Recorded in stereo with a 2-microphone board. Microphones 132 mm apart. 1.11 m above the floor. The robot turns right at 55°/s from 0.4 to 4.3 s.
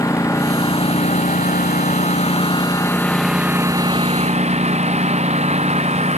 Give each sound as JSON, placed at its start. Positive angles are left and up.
{"t": 0.0, "sound": "a lawn mower", "azimuth_deg": 25}